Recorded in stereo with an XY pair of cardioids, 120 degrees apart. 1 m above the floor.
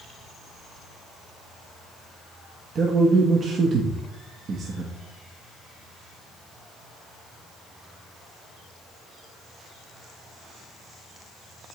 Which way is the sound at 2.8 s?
45° right.